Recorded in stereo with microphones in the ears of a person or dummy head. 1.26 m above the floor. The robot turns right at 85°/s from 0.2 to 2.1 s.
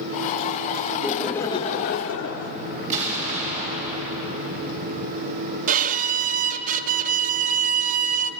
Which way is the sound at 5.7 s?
35° right (ahead or behind).